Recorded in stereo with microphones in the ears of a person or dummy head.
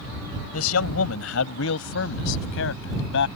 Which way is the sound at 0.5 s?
85° left.